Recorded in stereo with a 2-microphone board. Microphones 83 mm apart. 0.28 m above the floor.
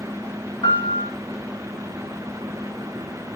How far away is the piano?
About 4.5 m.